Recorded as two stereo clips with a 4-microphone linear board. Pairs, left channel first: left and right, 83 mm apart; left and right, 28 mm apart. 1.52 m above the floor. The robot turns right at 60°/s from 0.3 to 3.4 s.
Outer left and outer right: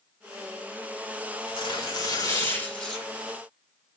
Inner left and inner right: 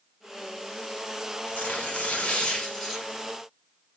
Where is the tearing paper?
90° left, 6 m; by 3.2 s 165° right, 6 m.